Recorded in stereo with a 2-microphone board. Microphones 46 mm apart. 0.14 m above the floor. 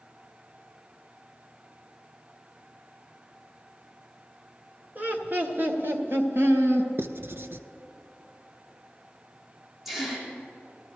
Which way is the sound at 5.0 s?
45° right (ahead or behind).